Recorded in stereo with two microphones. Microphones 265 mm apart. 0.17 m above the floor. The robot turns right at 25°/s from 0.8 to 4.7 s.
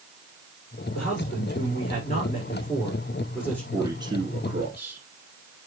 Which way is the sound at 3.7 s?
10° right (ahead or behind).